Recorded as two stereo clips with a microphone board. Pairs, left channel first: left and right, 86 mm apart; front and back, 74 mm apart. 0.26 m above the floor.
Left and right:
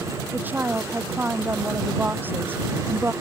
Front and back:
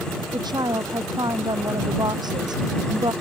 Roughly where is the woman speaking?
Behind.